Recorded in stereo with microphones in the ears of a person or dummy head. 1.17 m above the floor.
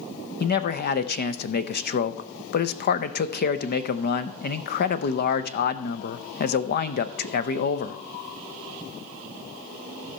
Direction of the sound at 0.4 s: 50° left (ahead or behind).